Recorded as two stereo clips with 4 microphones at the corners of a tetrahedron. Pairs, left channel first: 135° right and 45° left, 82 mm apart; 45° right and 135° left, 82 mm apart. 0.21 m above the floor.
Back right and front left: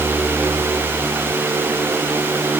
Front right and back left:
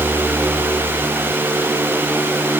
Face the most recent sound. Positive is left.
No sound to turn to.